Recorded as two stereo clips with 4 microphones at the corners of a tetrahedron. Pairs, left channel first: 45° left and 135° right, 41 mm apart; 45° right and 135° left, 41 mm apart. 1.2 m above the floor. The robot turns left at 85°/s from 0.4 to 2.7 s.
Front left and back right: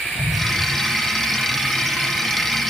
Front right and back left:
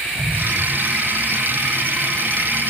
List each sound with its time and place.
0.2 s an explosion: 120° left, 3.5 m; by 0.6 s 100° left, 3.5 m